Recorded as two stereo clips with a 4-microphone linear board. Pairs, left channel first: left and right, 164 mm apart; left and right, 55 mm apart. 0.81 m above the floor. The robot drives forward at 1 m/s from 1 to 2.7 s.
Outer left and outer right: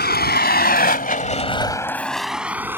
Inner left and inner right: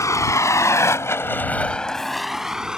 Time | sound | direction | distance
0.0 | a vehicle | 85° left | ?